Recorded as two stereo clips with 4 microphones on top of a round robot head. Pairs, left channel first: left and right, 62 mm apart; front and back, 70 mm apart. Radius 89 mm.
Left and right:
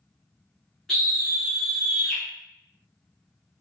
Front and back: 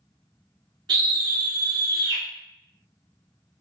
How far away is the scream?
About 0.5 m.